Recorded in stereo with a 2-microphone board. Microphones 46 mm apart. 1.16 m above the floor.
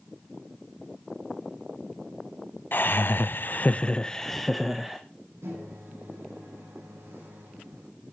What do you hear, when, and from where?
2.7 s laughter: 50° left (ahead or behind), 0.9 m; by 5.0 s 10° right (ahead or behind), 1.3 m
5.4 s a microwave: 85° right, 7 m